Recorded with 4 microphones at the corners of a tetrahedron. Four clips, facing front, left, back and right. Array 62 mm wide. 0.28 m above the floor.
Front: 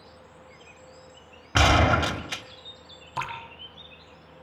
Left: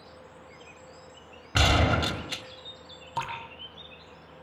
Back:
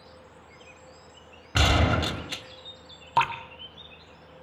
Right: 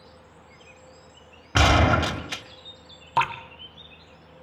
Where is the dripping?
140° right, 2 m.